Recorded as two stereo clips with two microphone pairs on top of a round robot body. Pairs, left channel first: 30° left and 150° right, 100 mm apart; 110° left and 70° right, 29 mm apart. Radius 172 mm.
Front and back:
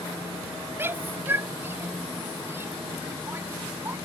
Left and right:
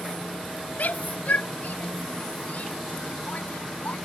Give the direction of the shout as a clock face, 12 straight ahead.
7 o'clock.